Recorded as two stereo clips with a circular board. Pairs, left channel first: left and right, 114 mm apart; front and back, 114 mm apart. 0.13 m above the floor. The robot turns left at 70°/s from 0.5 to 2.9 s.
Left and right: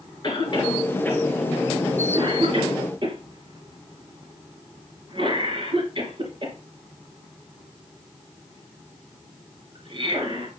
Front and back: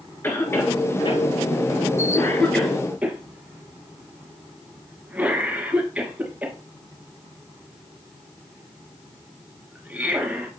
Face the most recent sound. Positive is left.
turn(degrees=-105)